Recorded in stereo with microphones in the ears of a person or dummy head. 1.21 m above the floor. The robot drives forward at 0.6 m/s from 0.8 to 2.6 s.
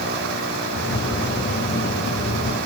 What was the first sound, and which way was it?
Only background noise.